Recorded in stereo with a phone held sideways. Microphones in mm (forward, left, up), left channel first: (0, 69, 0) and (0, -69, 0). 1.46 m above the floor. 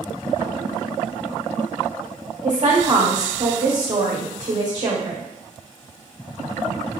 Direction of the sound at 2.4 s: 55° right (ahead or behind).